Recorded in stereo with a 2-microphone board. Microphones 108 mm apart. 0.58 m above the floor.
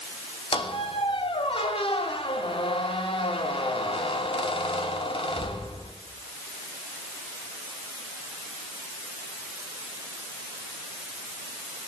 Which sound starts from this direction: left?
A squeak, at 0.5 s.